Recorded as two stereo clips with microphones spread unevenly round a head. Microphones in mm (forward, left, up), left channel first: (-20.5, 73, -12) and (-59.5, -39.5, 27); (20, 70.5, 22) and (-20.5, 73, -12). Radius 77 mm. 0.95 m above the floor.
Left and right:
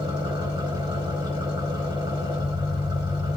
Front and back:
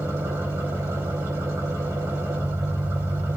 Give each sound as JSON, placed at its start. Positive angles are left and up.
{"t": 0.0, "sound": "an engine running", "azimuth_deg": -165, "distance_m": 4.0}